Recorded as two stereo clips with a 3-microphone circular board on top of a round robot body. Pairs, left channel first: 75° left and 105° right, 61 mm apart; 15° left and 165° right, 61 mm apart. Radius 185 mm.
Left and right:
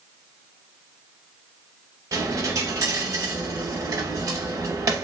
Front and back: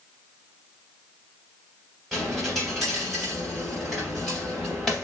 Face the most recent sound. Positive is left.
turn(degrees=-70)